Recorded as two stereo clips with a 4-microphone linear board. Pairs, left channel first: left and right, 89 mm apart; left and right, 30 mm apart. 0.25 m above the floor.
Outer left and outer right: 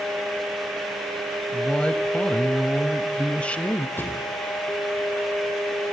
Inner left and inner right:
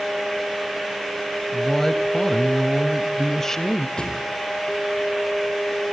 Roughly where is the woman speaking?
Centre.